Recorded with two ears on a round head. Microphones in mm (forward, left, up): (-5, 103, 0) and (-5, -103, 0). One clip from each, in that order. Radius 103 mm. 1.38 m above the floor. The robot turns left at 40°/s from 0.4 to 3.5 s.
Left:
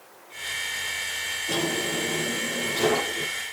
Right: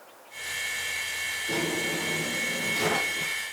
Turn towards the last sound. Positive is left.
turn(degrees=-40)